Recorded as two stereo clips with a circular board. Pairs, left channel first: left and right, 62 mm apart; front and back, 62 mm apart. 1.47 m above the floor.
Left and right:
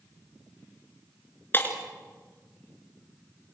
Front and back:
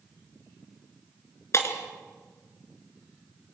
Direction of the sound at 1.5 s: 35° left.